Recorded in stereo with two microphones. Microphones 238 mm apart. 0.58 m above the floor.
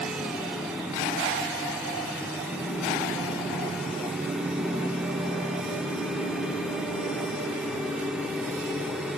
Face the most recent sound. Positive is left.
No sound to turn to.